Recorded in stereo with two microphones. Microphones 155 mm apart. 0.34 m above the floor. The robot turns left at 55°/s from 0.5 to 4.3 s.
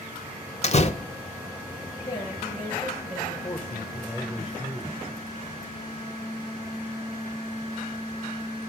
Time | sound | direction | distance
0.6 | a door slam | 45° left (ahead or behind) | 0.8 m
2.1 | a woman speaking | 25° left | 7 m
3.4 | a man speaking | 20° left (ahead or behind) | 1.6 m